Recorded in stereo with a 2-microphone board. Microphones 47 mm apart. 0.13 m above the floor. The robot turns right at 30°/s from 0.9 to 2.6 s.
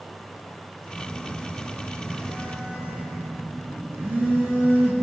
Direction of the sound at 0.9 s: 110° right.